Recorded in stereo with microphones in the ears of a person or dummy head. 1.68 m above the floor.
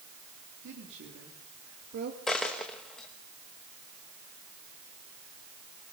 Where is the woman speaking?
70° right (ahead or behind), 3.5 m; by 2.2 s 50° right (ahead or behind), 2.5 m.